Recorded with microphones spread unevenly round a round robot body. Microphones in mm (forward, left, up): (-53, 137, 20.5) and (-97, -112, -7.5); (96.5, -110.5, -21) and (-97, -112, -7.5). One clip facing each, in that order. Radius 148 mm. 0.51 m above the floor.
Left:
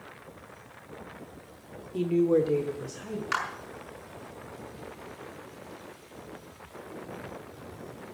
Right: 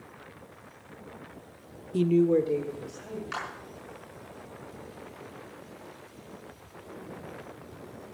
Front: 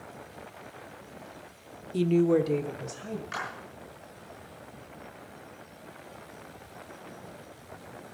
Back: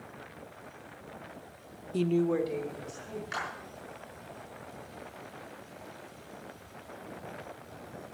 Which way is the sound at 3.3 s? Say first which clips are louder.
Left 2 dB, front 1 dB; 100° left.